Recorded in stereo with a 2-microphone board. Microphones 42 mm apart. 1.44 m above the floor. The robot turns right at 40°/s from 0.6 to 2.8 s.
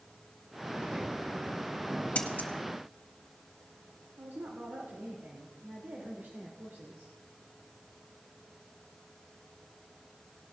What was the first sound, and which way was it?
Scissors, 35° left (ahead or behind).